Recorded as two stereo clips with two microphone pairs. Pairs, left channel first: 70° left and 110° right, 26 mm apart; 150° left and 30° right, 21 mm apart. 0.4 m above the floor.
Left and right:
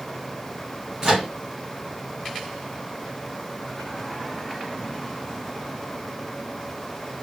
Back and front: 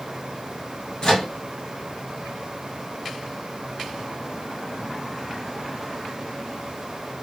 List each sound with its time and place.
1.0 s a microwave: 165° right, 1.9 m